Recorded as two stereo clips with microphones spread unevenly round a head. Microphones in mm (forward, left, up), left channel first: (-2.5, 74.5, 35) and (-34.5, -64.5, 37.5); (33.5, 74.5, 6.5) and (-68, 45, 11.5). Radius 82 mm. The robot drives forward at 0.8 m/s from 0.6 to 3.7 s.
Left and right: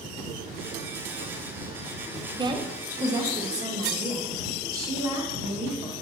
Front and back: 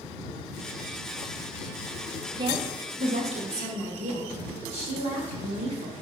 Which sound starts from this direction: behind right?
A woman speaking, at 2.4 s.